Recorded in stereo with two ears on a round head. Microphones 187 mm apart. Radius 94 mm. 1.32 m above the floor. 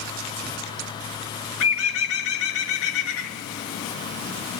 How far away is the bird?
About 1.8 m.